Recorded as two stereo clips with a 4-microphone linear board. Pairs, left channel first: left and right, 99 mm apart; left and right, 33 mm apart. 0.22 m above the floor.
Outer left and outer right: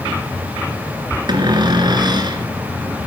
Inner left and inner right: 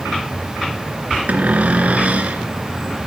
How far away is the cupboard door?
About 2 m.